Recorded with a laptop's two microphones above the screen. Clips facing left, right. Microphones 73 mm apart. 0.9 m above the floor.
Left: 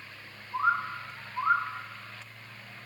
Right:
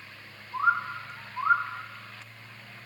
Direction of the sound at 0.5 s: 5° right (ahead or behind).